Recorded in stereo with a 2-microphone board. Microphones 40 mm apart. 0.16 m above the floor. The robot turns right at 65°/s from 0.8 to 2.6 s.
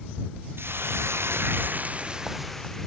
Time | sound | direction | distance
0.6 | a hiss | 110° right | ?